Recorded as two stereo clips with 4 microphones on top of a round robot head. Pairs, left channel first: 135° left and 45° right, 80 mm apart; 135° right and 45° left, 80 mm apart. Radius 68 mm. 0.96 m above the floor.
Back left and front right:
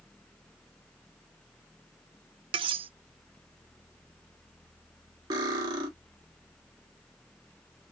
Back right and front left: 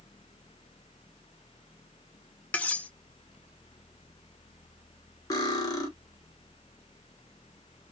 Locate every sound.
2.5 s cutlery clinking: 60° right, 0.6 m
5.3 s cutlery clinking: 85° right, 1.4 m